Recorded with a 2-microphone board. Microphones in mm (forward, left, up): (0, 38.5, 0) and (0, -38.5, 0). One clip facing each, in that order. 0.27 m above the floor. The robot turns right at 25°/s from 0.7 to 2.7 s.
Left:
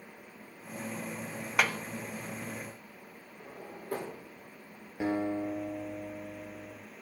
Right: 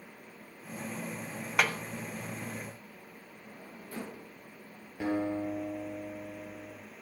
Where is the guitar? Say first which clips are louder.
Even; 20° left (ahead or behind), 3.5 m.